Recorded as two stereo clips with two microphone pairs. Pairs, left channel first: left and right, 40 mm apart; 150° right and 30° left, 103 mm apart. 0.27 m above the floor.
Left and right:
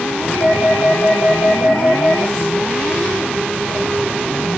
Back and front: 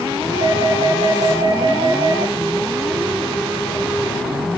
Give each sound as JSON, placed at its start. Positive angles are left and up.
{"t": 0.3, "sound": "a doorbell", "azimuth_deg": 80, "distance_m": 9.5}